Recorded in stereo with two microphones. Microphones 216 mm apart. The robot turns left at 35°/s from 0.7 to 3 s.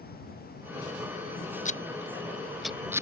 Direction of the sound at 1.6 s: 35° left (ahead or behind).